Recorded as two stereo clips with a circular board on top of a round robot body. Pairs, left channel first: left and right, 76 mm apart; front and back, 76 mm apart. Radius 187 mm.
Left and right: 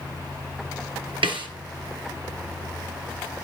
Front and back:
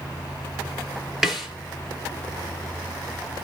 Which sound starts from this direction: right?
A snare drum, at 1.2 s.